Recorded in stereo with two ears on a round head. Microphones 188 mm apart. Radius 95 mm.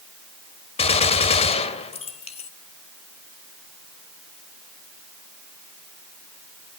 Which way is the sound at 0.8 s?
30° left (ahead or behind).